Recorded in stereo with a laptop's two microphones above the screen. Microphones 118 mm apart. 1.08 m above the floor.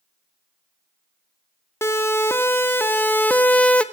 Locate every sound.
1.8 s a siren: 20° left (ahead or behind), 2 m; by 3.8 s 10° left (ahead or behind), 1.1 m